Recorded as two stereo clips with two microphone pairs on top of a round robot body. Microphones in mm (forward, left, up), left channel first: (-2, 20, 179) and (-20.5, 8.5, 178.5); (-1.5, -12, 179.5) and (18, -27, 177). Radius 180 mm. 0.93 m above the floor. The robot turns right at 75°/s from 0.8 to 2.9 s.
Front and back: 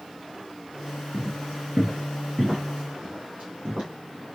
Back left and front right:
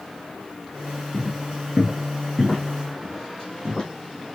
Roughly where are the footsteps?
Behind.